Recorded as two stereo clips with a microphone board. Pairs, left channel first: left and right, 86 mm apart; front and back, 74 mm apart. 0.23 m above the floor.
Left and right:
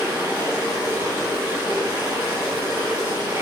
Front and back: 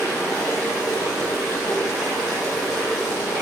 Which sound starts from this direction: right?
Running water, at 0.0 s.